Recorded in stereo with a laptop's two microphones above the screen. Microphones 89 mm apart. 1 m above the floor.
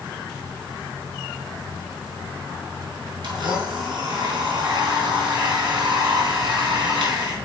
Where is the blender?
60° right (ahead or behind), 4 m.